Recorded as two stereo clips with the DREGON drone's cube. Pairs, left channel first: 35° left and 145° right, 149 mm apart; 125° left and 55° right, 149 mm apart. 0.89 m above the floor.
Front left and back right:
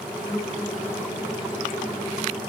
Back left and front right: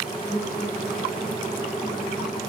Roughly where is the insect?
Behind left.